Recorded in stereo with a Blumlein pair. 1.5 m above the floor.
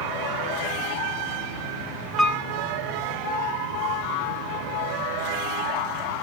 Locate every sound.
2.2 s a piano: straight ahead, 1.0 m